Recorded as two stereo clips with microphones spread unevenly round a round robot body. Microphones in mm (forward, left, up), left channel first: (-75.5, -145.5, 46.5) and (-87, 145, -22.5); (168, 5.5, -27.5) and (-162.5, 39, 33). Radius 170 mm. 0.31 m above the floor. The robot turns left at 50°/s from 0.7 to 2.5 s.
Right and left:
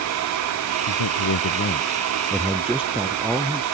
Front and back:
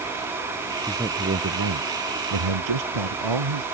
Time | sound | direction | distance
0.9 | a man speaking | 100° right | ?